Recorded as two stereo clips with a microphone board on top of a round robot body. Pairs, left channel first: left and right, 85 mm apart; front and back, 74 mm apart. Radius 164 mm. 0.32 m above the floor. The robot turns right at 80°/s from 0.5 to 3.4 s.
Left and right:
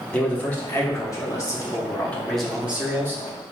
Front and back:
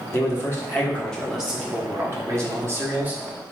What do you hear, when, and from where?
0.1 s a man speaking: 25° left, 1.4 m; by 3.2 s 120° right, 1.4 m